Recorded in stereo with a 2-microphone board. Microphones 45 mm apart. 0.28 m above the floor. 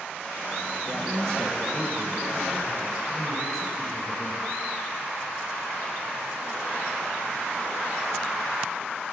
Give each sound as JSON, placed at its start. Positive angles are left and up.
{"t": 0.9, "sound": "a man speaking", "side_deg": 20, "distance_m": 0.9}